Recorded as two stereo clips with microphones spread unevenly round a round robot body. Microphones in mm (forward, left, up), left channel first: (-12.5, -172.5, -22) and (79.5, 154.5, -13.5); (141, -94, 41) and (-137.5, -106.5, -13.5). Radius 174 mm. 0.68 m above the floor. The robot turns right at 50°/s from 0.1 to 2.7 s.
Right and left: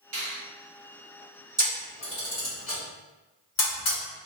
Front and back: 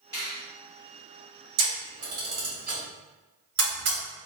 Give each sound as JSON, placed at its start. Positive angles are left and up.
{"t": 0.1, "sound": "a finger snap", "azimuth_deg": 85, "distance_m": 1.9}
{"t": 1.6, "sound": "a camera shutter", "azimuth_deg": 155, "distance_m": 1.8}